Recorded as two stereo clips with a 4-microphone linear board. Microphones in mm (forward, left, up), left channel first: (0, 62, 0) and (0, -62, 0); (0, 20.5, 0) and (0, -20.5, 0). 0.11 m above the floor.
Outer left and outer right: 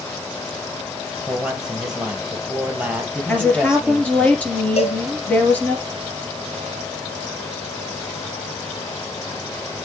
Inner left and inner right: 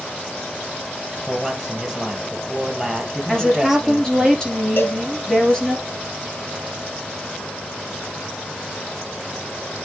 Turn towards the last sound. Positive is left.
turn(degrees=55)  # may be behind; listen again after turning